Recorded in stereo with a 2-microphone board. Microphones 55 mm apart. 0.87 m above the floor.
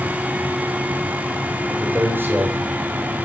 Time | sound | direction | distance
1.7 | a man speaking | 40° right (ahead or behind) | 5 m